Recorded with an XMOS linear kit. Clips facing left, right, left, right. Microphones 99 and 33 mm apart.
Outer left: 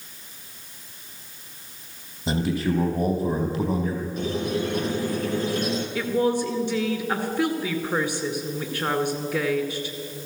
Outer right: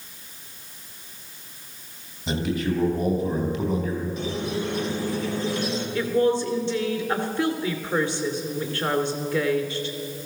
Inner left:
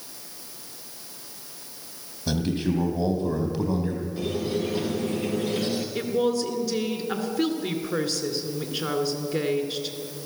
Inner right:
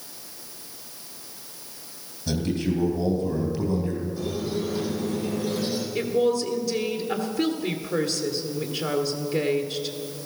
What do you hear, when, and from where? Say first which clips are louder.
2.3 s a man speaking: outer left 1 dB, even; 30° left (ahead or behind), 3.5 m
4.2 s a squeak: outer left 2 dB, inner left 1 dB; 45° left (ahead or behind), 2 m
6.0 s a woman speaking: outer right 2 dB, inner right 3 dB; 15° left (ahead or behind), 1.7 m